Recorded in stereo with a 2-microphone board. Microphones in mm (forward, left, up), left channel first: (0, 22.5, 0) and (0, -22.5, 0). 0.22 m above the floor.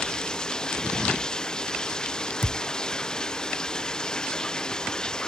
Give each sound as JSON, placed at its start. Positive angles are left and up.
{"t": 0.0, "sound": "running water", "side_deg": 15}
{"t": 2.4, "sound": "a thud", "side_deg": 70}